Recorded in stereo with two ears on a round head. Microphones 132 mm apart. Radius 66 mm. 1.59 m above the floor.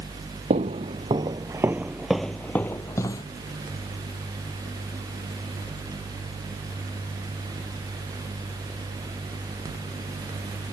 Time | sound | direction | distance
0.5 | footsteps | 45° right (ahead or behind) | ?